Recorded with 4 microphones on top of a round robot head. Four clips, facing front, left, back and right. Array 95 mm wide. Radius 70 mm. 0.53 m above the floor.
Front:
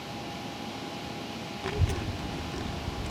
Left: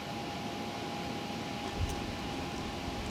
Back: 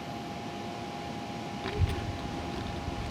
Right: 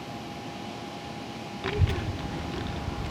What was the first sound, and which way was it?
A child speaking, 70° right.